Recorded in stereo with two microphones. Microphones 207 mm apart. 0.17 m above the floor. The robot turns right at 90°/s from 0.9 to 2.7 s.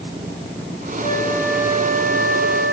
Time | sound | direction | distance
1.0 | a flute | 135° left | 9 m